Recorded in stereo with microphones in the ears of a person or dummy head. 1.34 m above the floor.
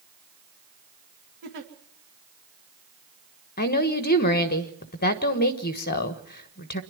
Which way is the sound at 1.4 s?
55° right (ahead or behind).